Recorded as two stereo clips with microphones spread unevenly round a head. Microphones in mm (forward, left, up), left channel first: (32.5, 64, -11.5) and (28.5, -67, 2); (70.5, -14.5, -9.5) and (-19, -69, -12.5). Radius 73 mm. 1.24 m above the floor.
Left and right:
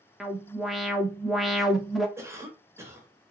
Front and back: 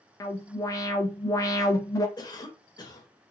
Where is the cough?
20° right, 1.7 m.